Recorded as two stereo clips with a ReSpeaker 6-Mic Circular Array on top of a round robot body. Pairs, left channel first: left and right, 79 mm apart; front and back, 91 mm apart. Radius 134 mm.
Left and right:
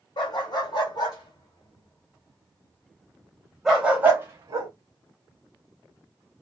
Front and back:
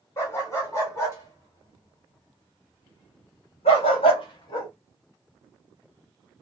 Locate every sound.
0.2 s a dog barking: 60° left, 2 m; by 4.7 s 50° right, 0.9 m